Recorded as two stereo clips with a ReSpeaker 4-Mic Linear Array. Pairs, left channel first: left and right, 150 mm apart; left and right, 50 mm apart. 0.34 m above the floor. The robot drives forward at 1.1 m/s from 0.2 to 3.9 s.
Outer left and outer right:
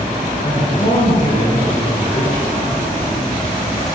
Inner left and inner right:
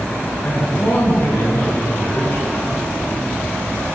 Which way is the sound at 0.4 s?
60° left (ahead or behind).